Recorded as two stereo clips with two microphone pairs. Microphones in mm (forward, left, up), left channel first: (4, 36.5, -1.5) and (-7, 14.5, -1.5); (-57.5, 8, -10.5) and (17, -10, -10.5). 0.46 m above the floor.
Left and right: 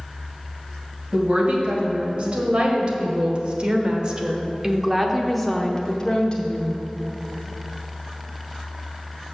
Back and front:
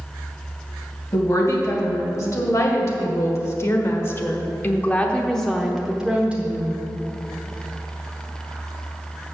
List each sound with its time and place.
1.1 s a woman speaking: 150° right, 2.5 m; by 6.8 s 40° left, 1.1 m